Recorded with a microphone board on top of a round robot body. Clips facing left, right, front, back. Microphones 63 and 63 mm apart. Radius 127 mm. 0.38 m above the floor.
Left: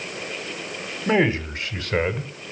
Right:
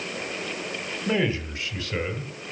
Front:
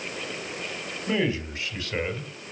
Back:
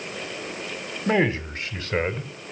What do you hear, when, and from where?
1.1 s a man speaking: 150° left, 3.5 m; by 2.3 s 130° left, 2.5 m